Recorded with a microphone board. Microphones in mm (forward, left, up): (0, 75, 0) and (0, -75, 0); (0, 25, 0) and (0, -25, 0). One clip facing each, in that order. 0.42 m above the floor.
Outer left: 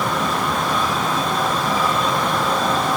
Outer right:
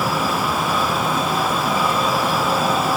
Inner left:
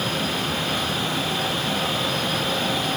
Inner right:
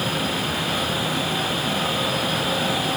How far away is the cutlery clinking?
I don't hear cutlery clinking.